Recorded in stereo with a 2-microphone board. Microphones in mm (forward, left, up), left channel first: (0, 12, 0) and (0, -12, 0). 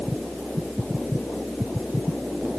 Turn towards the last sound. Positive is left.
No sound to turn to.